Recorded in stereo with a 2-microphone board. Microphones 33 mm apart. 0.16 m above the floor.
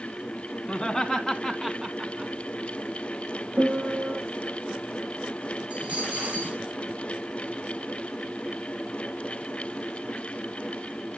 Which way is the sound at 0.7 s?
20° left (ahead or behind).